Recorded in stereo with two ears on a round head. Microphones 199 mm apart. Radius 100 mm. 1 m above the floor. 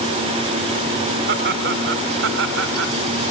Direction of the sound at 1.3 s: 50° right (ahead or behind).